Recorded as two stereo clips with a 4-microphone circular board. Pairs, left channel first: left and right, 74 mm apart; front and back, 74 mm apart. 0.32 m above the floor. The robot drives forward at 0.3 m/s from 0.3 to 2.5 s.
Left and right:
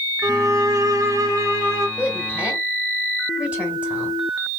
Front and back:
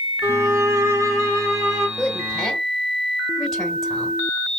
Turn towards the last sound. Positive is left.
turn(degrees=-80)